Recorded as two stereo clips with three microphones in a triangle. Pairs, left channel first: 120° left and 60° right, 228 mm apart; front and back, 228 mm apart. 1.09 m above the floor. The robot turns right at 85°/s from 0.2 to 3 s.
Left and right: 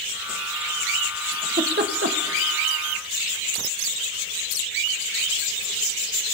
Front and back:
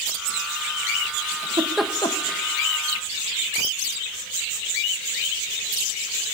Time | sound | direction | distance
1.3 | a giggle | 130° right | 1.2 m